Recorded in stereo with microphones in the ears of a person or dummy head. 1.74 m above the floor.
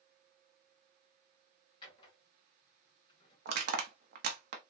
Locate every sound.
1.8 s a drawer: 25° left (ahead or behind), 1.6 m
3.5 s crushing: 55° right (ahead or behind), 0.8 m